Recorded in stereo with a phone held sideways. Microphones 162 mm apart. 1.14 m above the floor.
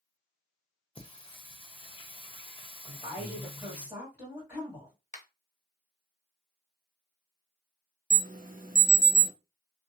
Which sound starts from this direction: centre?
A woman speaking, at 2.9 s.